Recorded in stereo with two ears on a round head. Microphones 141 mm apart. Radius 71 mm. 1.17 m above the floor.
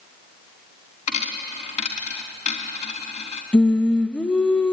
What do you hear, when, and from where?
1.1 s a dropped coin: 45° left (ahead or behind), 3.5 m
3.5 s singing: 5° left (ahead or behind), 0.7 m